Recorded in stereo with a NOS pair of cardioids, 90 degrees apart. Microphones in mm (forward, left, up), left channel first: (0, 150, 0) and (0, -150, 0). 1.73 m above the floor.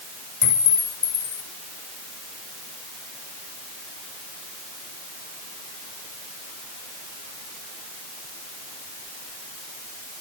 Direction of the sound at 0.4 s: 55° left.